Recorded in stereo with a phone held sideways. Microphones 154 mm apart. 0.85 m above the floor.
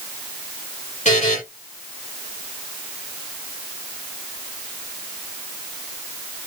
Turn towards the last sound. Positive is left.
turn(degrees=50)  # may be behind; listen again after turning